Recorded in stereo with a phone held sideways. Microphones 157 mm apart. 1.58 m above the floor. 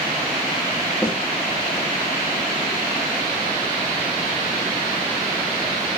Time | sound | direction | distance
1.0 | a snare drum | 5° right (ahead or behind) | 1.6 m